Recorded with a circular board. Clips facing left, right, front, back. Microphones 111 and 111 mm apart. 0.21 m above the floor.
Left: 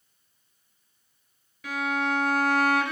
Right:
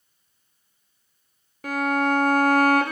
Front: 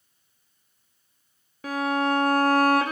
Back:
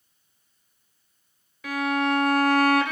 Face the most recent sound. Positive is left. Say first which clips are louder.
# right 5 dB, even
turn(degrees=-50)